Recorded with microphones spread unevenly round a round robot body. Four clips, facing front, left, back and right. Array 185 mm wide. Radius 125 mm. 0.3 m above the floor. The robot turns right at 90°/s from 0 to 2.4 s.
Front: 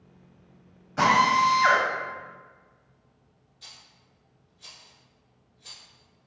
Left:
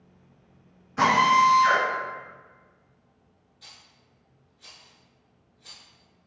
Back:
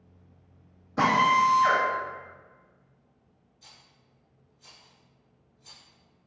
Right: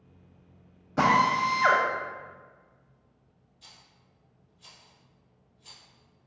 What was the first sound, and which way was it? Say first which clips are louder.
A drill: left 4 dB, front 1 dB; 120° right.